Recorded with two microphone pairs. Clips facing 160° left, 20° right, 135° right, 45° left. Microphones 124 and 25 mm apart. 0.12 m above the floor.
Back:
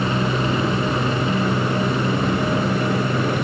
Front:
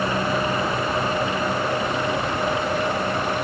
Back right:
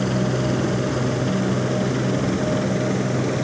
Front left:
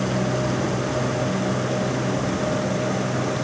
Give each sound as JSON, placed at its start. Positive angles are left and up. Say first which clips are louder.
{"t": 0.0, "sound": "a helicopter", "louder": "back 1 dB, back right 1 dB", "azimuth_deg": 175}